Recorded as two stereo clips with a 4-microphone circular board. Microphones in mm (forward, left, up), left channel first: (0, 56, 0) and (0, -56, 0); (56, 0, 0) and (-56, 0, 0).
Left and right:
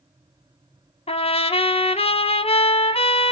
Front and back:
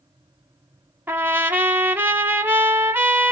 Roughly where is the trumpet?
Left.